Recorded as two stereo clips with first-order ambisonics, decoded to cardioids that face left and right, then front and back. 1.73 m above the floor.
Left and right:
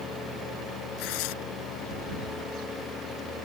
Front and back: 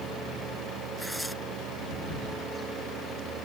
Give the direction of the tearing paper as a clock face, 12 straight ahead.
9 o'clock.